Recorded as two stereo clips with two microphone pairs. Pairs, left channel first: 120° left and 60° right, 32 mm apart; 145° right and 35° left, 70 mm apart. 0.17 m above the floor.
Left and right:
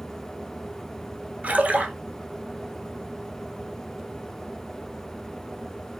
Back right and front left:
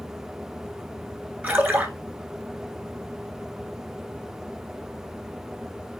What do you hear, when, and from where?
1.4 s a splash: 25° right, 0.9 m